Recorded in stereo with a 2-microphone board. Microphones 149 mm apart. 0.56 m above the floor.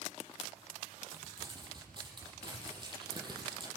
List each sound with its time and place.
1.1 s crumpling: 35° right (ahead or behind), 8 m